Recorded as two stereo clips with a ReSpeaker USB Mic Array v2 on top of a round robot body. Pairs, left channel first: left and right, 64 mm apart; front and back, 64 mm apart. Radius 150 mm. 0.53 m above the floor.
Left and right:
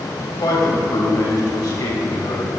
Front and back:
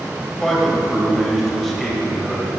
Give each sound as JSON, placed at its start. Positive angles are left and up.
{"t": 0.4, "sound": "a man speaking", "azimuth_deg": 85, "distance_m": 4.0}